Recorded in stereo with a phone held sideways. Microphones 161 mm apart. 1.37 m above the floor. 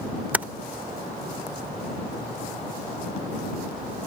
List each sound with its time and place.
0.3 s typing on a keyboard: 10° right (ahead or behind)